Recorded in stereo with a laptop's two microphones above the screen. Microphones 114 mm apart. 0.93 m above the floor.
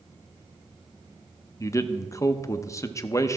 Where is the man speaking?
25° left (ahead or behind), 0.5 m.